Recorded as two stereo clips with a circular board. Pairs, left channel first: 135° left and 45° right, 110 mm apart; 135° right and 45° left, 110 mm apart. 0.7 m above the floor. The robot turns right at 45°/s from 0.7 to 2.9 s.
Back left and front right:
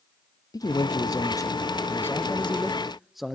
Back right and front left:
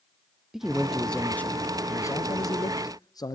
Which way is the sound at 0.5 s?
130° left.